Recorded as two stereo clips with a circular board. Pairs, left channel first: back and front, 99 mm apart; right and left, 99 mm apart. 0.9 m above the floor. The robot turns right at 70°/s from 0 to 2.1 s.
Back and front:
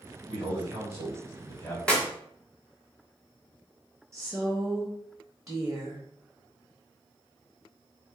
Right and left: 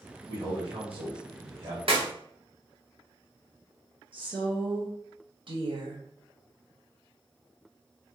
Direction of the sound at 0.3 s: 25° left.